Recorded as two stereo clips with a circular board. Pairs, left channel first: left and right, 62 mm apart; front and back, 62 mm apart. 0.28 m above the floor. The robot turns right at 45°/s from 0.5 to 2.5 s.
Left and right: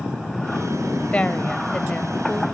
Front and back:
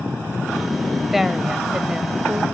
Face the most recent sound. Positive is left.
turn(degrees=160)